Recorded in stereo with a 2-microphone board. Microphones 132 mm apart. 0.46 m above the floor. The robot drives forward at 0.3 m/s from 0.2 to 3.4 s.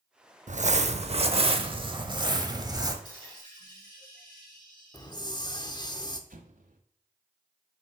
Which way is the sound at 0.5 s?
60° right (ahead or behind).